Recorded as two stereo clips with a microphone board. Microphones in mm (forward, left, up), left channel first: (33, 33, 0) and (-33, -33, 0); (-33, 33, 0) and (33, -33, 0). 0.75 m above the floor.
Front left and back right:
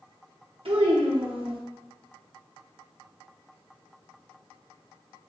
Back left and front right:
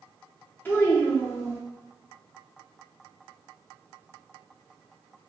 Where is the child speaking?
155° right, 0.7 m.